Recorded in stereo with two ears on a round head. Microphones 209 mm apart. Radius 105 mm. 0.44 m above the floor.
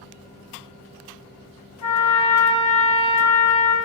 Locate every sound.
1.8 s a trumpet: 70° left (ahead or behind), 0.8 m